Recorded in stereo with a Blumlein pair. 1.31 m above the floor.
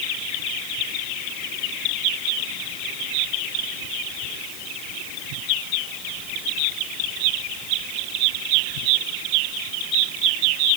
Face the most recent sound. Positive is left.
No sound to turn to.